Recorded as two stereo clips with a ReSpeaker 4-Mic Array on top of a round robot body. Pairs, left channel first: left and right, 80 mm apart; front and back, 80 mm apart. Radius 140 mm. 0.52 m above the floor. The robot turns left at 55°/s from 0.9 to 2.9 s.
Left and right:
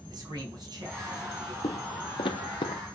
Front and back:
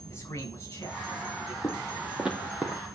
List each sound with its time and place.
0.1 s a man speaking: 60° right, 4.5 m; by 1.5 s 95° right, 4.5 m
1.6 s footsteps: 70° left, 0.8 m; by 2.8 s 100° left, 1.2 m